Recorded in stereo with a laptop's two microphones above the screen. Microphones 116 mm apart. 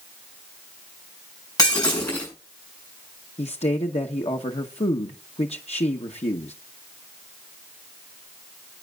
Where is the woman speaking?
70° left (ahead or behind), 0.9 m.